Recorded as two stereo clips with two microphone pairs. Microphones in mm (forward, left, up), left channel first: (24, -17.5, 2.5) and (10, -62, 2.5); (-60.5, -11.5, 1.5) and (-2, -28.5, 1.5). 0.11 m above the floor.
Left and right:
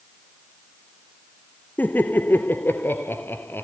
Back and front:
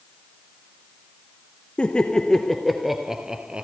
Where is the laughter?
100° left, 1.7 m; by 3.6 s 55° left, 1.8 m.